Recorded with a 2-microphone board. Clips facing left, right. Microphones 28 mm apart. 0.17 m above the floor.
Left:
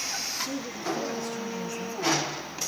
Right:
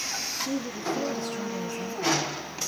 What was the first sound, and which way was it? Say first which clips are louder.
A woman speaking: right 2 dB; 35° right (ahead or behind).